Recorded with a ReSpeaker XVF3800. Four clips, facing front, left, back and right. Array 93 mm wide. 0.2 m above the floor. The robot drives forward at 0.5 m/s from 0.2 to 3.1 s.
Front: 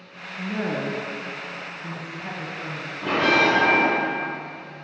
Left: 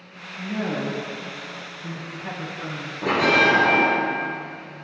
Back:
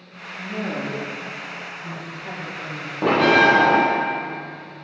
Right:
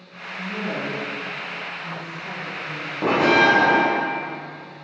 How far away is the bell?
About 1.4 m.